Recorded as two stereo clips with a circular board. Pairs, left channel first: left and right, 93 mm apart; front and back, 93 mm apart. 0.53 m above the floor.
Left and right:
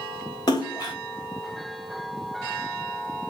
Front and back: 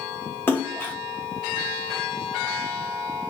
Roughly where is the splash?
Ahead left.